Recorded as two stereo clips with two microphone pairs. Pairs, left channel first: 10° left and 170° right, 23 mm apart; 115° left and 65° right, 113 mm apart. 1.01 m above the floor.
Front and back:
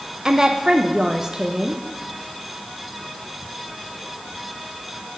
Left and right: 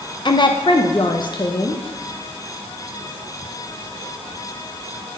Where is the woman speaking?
140° left, 0.6 m.